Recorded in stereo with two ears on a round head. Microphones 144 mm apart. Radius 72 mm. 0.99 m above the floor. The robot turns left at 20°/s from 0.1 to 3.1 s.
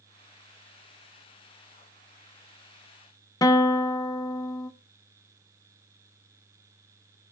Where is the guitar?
20° left (ahead or behind), 0.6 m.